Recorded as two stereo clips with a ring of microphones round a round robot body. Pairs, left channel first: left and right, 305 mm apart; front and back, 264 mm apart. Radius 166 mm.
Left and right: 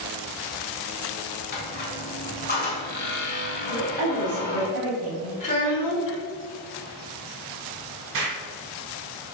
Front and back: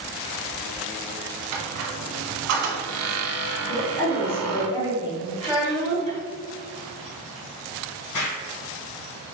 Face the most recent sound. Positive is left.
turn(degrees=-45)